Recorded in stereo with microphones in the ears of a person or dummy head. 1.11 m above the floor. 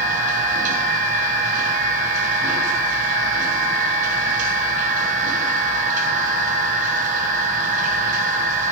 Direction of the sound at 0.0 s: 45° right (ahead or behind).